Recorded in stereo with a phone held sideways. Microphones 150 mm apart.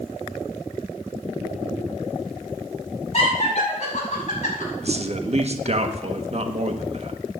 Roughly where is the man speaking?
Right.